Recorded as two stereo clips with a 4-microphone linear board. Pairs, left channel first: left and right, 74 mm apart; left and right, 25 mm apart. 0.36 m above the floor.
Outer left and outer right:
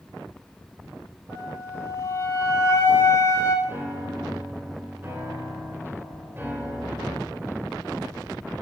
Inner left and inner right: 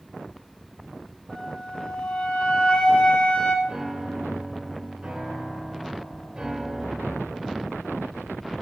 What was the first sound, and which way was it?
A flute, 50° left (ahead or behind).